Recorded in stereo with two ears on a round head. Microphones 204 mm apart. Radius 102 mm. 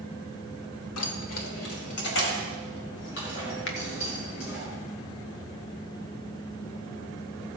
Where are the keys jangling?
70° left (ahead or behind), 1.1 m; by 4.6 s 65° left (ahead or behind), 6 m.